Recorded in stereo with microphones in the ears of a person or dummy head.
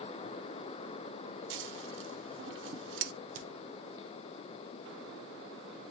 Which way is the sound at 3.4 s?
50° right (ahead or behind).